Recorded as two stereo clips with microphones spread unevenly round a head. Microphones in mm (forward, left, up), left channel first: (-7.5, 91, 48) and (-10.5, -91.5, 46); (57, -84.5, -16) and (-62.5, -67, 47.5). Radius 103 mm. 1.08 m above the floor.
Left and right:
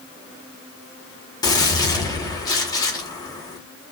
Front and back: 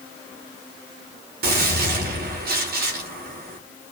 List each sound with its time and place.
1.4 s a gunshot: 160° left, 3 m